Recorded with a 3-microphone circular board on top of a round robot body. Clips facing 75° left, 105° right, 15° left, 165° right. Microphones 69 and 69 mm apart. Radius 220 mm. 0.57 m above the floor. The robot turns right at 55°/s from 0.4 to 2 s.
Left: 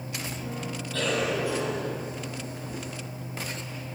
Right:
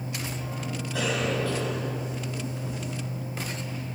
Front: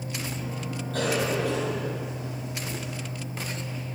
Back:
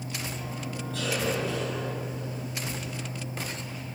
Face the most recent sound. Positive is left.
turn(degrees=30)